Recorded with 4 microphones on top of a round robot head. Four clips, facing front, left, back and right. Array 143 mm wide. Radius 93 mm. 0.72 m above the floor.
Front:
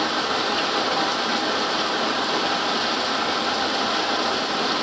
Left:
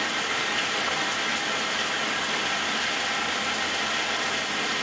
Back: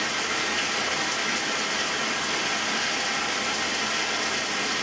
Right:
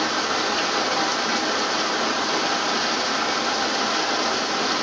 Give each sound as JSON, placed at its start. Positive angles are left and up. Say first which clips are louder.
{"t": 0.0, "sound": "running water", "louder": "right 6 dB, front 6 dB", "azimuth_deg": -45, "distance_m": 0.7}